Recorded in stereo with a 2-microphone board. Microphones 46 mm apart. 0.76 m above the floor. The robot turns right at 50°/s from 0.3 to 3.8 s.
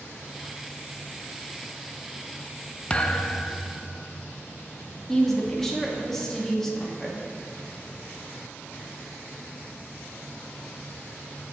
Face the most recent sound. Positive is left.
turn(degrees=10)  # may be behind; listen again after turning